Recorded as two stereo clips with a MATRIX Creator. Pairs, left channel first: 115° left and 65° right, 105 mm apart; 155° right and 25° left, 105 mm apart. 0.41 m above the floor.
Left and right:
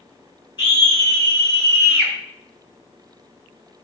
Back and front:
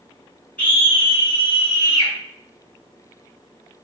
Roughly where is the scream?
Behind left.